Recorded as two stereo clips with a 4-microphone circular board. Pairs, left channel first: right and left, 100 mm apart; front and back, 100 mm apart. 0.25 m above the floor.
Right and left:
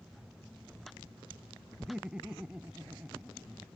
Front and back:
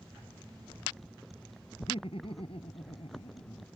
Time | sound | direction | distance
1.8 | laughter | 5° left | ?